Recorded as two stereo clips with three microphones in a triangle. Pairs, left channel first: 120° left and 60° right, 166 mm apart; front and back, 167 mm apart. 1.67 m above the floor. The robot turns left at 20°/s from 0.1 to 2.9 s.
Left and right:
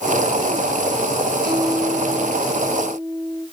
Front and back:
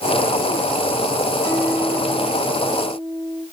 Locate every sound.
1.4 s a guitar: 70° right, 6 m; by 3.4 s 95° right, 6 m